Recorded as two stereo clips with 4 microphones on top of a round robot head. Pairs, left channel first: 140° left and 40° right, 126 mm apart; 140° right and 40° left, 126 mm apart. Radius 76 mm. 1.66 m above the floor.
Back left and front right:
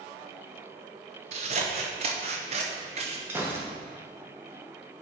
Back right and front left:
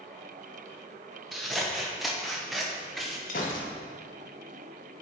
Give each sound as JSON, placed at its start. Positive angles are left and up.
{"t": 1.3, "sound": "scissors", "azimuth_deg": -50, "distance_m": 0.7}
{"t": 3.3, "sound": "a gunshot", "azimuth_deg": -115, "distance_m": 1.3}